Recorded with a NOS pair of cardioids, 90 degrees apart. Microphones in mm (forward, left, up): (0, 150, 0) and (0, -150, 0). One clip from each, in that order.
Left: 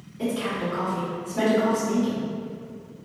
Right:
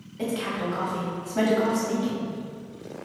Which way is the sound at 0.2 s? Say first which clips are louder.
Left 1 dB; 55° right.